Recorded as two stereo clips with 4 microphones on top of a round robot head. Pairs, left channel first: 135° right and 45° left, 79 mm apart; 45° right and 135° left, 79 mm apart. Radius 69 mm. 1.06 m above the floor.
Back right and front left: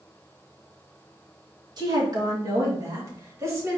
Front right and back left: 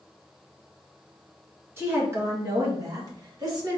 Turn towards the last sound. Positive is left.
turn(degrees=100)